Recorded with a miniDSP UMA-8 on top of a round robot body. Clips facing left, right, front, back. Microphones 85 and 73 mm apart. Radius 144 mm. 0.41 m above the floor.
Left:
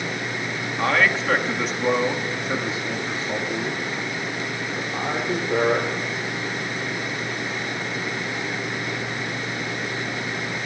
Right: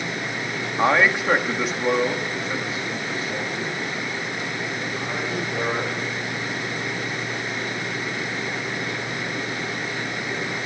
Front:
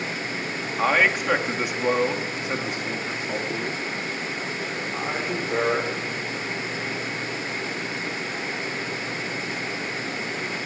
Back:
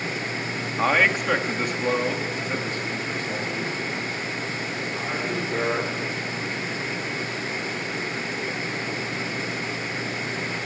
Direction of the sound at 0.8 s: 90° right.